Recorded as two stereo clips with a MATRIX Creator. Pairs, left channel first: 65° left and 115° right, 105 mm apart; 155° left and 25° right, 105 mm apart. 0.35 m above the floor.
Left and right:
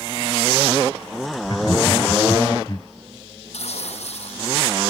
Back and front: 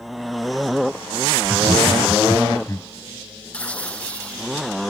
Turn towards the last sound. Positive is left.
turn(degrees=80)